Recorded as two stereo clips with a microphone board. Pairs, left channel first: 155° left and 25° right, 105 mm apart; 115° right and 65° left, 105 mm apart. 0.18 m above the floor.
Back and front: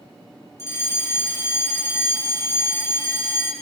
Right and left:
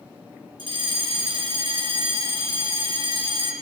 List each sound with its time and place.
0.6 s a fire alarm: 95° left, 7.5 m